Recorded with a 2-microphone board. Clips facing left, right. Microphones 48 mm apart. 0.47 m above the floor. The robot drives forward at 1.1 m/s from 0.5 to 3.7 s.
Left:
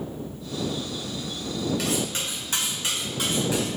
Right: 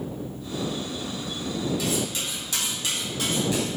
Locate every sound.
1.8 s cutlery clinking: 60° left (ahead or behind), 1.1 m; by 3.7 s 20° left (ahead or behind), 2.5 m